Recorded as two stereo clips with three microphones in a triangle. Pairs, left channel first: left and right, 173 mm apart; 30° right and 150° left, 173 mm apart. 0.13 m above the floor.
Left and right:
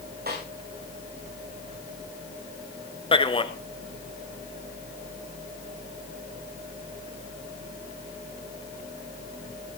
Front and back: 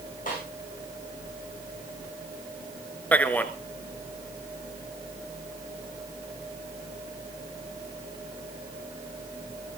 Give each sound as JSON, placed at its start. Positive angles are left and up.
{"t": 0.3, "sound": "a snare drum", "azimuth_deg": -65, "distance_m": 9.5}
{"t": 3.1, "sound": "a man speaking", "azimuth_deg": 45, "distance_m": 1.4}